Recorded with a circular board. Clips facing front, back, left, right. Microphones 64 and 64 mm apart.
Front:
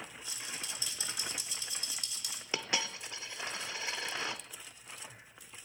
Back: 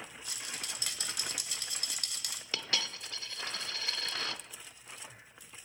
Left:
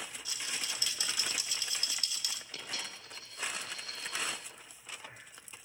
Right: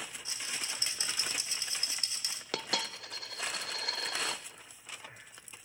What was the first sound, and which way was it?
A rattle, 150° right.